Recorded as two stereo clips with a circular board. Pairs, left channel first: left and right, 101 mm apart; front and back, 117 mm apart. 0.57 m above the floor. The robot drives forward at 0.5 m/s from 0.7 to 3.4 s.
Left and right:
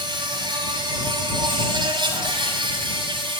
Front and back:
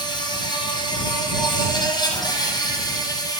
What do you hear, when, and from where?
0.0 s an insect: 50° right, 9.5 m; by 3.4 s 55° right, 8.5 m